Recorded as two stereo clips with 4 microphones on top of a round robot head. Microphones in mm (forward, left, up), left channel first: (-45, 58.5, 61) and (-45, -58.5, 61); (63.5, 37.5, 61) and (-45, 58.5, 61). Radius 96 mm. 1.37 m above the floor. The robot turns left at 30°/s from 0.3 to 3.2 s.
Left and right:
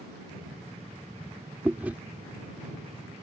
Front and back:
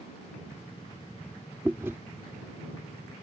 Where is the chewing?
140° right; by 2.0 s 150° right.